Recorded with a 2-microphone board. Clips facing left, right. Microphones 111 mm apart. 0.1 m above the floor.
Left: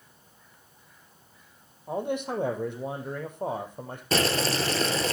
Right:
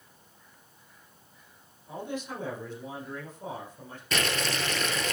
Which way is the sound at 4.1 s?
35° left (ahead or behind).